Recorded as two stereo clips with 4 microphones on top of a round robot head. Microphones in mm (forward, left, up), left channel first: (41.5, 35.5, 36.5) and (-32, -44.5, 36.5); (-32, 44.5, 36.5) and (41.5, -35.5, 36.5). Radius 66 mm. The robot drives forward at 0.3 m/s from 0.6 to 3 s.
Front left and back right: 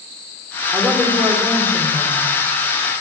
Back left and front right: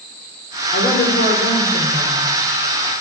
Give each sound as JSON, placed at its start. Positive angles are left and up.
{"t": 0.7, "sound": "a woman speaking", "azimuth_deg": 135, "distance_m": 3.5}